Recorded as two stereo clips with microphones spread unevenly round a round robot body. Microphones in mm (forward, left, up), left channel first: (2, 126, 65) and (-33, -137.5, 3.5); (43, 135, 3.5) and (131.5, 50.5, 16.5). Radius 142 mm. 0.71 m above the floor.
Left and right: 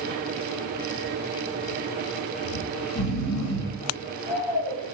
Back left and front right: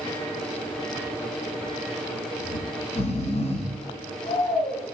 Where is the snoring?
100° left, 1.2 m.